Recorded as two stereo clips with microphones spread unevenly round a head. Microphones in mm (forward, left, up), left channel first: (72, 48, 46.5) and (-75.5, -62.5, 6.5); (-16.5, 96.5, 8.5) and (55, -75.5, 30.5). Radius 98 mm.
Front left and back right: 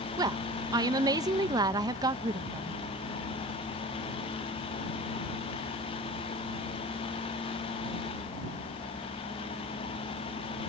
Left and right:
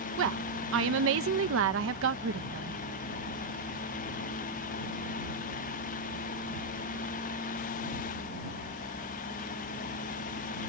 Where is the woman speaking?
70° right.